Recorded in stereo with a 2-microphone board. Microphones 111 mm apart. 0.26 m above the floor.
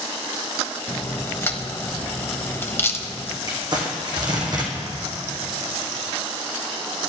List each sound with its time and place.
0.9 s a crack: 20° left (ahead or behind), 1.1 m
3.5 s crumpling: 40° right (ahead or behind), 2.5 m